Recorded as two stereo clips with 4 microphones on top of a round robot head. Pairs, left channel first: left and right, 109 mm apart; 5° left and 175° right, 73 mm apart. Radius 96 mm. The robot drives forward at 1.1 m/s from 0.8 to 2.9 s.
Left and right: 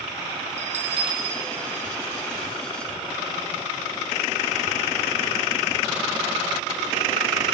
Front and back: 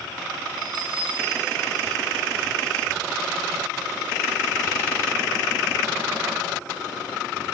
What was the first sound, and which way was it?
A bell, 130° right.